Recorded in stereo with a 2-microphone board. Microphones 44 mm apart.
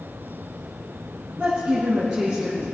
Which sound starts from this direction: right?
A woman speaking, at 1.4 s.